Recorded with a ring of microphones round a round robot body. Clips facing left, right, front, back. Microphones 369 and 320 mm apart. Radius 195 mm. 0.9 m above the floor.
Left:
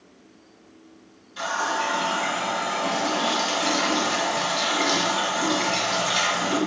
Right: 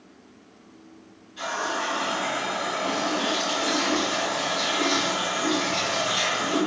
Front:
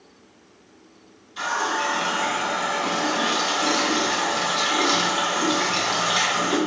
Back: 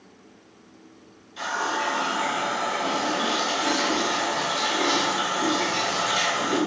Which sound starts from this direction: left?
A running tap, at 1.4 s.